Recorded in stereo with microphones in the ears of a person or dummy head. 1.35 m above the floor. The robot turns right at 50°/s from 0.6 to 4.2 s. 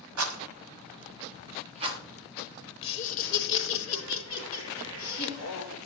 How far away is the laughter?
About 1.0 m.